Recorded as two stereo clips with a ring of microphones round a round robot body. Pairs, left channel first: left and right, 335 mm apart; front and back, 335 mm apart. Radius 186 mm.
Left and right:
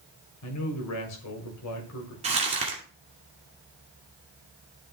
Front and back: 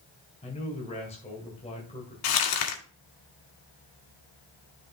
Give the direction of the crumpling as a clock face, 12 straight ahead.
1 o'clock.